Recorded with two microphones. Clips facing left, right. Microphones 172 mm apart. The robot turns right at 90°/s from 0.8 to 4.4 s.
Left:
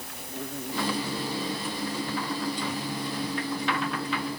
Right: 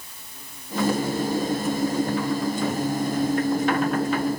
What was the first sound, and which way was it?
An insect, 110° left.